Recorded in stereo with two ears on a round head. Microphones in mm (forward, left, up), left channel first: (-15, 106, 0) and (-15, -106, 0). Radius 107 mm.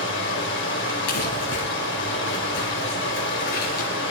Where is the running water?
55° left (ahead or behind), 2.5 m.